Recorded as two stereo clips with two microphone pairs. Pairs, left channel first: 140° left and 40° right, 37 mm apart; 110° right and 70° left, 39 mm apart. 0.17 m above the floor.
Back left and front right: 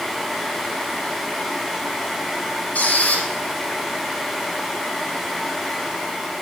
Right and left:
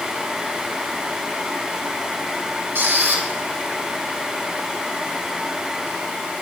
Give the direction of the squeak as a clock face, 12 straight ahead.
9 o'clock.